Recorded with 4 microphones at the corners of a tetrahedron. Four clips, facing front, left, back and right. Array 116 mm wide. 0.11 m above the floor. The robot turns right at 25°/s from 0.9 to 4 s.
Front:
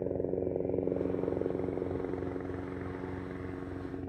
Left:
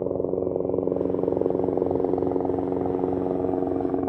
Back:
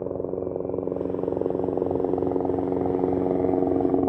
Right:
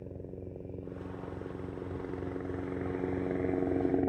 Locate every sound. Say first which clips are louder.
0.0 s a helicopter: left 19 dB, back 4 dB; 95° left; by 4.1 s 175° left